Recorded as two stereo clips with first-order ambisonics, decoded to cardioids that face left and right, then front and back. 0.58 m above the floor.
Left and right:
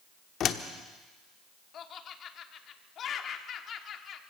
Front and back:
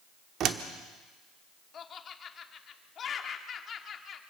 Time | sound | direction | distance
0.4 | a door slam | 135° left | 1.0 m
1.7 | laughter | 50° left | 1.3 m